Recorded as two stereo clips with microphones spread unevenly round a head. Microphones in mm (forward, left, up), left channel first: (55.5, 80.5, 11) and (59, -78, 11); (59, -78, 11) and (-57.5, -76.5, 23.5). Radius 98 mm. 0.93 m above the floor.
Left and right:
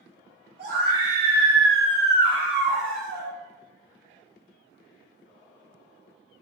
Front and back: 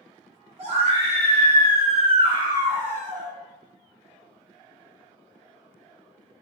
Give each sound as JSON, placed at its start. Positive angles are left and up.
{"t": 0.6, "sound": "a scream", "azimuth_deg": -145, "distance_m": 1.0}